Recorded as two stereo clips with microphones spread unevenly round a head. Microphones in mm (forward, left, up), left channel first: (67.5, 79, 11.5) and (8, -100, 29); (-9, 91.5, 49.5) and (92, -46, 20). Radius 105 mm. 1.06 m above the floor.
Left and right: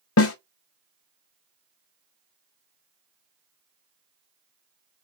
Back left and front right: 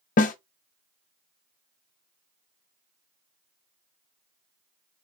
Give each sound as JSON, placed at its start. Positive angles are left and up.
{"t": 0.2, "sound": "a snare drum", "azimuth_deg": 95, "distance_m": 0.5}